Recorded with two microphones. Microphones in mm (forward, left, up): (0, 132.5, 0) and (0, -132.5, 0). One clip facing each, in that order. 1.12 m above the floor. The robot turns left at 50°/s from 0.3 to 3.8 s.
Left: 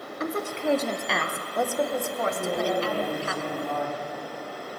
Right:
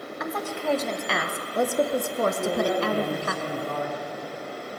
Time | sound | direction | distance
0.2 | a woman speaking | 40° left | 1.0 m
2.3 | a man speaking | 15° left | 4.5 m